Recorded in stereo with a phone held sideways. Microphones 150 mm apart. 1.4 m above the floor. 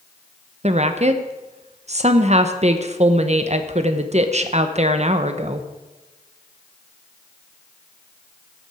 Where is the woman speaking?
50° right (ahead or behind), 0.9 m.